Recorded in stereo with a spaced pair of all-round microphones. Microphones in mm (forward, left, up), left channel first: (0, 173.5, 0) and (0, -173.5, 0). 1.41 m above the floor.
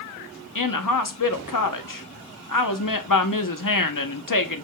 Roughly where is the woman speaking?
Left.